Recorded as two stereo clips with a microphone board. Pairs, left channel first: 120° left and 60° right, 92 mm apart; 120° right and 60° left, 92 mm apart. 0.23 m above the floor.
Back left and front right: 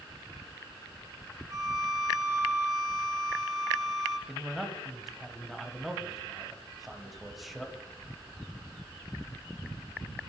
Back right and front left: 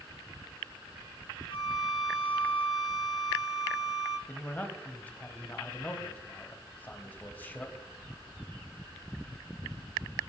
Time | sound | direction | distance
1.5 | a violin | 110° right | 2 m
4.3 | a man speaking | 145° right | 1.1 m